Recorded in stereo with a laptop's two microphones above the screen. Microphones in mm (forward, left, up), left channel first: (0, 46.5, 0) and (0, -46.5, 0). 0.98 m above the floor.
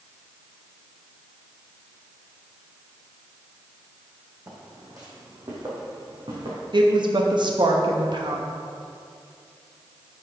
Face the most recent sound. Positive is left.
turn(degrees=-55)  # may be behind; listen again after turning